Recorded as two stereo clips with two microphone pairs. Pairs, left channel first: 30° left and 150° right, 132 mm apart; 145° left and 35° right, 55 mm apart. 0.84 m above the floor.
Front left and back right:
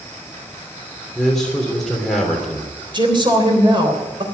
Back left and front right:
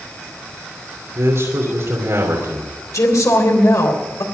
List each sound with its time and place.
1.1 s a man speaking: 55° right, 3 m
2.9 s a woman speaking: 160° left, 3.5 m